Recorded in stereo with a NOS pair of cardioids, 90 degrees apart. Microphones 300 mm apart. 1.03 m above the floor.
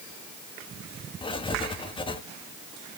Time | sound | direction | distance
1.2 | writing | 15° left | 1.1 m